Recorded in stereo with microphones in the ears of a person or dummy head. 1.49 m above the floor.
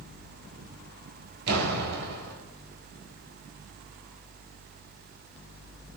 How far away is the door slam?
About 5.5 m.